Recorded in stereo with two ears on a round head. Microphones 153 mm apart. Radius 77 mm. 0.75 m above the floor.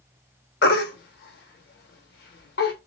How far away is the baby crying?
About 1.1 m.